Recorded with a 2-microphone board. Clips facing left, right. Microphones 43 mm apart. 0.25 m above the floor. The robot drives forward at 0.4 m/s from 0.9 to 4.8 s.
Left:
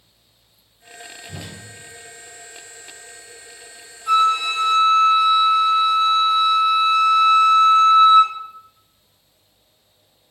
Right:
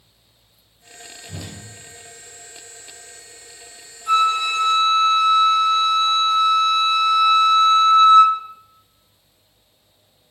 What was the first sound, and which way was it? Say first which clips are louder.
A whoosh: right 1 dB; 20° left (ahead or behind).